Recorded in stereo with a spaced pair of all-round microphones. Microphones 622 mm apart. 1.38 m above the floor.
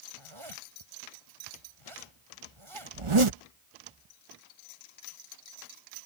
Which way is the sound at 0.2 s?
50° right (ahead or behind).